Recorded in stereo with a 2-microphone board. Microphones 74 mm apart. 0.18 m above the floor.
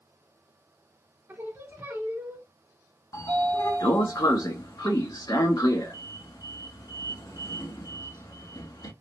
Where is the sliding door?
55° left (ahead or behind), 0.7 m.